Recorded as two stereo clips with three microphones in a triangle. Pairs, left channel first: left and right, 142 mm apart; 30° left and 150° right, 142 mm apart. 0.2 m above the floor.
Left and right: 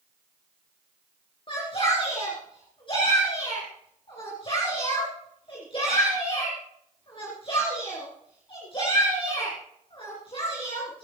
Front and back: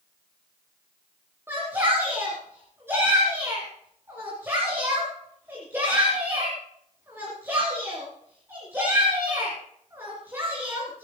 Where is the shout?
140° left, 3 m.